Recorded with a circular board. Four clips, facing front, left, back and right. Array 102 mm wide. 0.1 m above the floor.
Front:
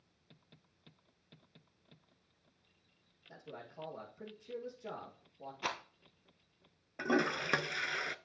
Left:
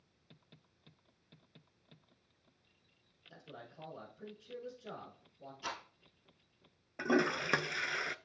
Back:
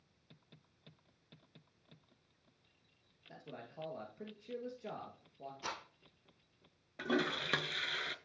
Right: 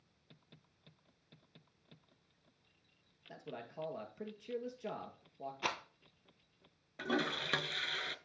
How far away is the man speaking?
About 2 m.